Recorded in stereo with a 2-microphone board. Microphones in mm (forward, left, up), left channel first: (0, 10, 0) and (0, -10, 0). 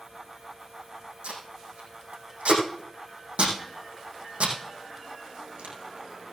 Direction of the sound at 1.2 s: 80° right.